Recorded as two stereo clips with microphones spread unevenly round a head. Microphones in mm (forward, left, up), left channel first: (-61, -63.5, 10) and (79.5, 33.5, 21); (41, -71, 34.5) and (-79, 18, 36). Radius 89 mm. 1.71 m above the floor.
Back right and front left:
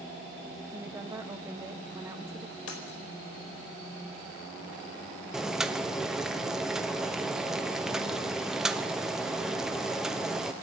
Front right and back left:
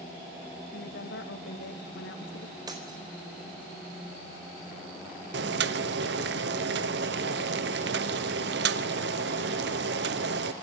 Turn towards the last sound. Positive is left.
turn(degrees=120)